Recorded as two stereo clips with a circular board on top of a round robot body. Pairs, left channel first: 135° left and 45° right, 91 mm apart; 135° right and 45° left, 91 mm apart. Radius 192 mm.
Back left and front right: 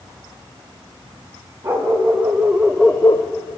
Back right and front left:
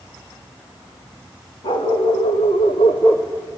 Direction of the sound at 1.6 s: 105° right.